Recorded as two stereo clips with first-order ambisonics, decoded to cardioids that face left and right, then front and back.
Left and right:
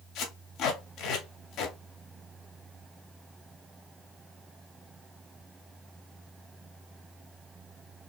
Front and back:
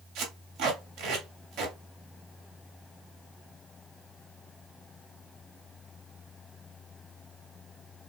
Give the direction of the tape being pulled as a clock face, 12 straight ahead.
7 o'clock.